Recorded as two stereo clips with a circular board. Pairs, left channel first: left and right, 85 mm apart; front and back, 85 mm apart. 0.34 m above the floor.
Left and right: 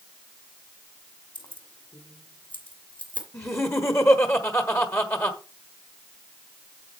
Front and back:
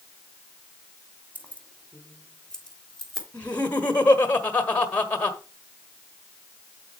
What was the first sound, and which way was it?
Keys jangling, 70° left.